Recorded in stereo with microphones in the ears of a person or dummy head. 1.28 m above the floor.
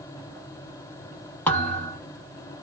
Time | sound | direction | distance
1.5 | a thud | 10° left (ahead or behind) | 0.8 m